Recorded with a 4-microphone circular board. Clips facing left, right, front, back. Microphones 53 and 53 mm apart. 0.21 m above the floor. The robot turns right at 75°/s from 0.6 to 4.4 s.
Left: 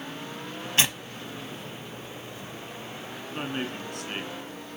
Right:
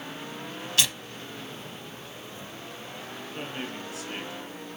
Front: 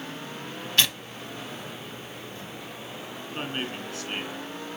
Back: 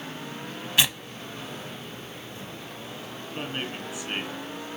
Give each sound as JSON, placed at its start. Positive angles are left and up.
{"t": 0.8, "sound": "tearing paper", "azimuth_deg": 110, "distance_m": 1.1}
{"t": 3.3, "sound": "a man speaking", "azimuth_deg": 55, "distance_m": 3.0}